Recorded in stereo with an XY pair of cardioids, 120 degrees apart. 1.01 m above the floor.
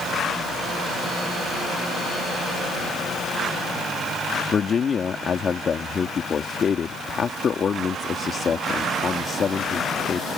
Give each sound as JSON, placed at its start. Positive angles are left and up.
{"t": 4.5, "sound": "a man speaking", "azimuth_deg": 40}